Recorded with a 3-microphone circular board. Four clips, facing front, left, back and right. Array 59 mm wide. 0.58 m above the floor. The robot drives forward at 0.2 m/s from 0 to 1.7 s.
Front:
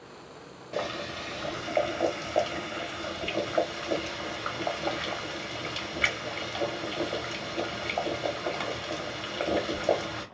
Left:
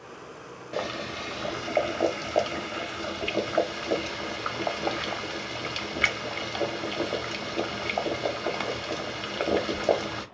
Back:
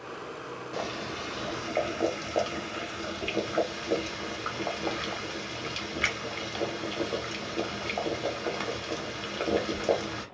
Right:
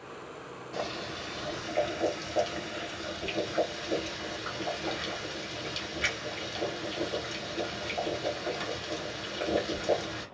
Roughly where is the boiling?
Left.